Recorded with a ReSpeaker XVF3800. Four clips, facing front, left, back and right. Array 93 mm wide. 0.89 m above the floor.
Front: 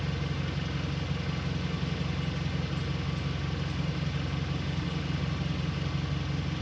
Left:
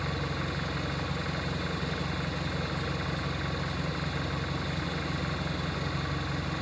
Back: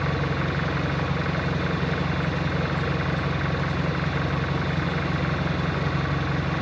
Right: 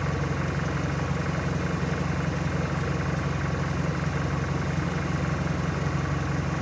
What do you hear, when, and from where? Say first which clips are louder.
0.0 s an engine running: right 4 dB, back 9 dB; 160° right, 0.7 m